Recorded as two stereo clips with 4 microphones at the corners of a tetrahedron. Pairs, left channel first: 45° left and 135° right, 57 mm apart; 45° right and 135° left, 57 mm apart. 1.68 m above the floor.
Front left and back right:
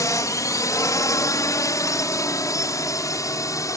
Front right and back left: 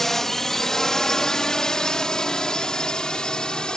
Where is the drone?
35° left; by 3.8 s 30° left.